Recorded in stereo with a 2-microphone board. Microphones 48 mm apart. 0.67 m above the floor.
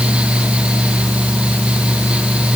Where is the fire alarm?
No fire alarm in this recording.